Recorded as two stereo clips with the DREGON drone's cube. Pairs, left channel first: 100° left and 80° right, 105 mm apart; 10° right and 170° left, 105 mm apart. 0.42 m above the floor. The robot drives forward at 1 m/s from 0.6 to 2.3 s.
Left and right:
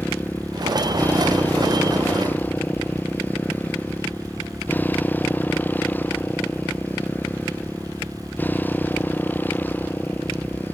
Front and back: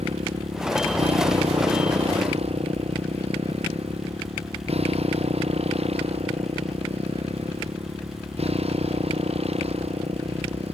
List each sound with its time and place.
0.0 s a motorcycle: 175° left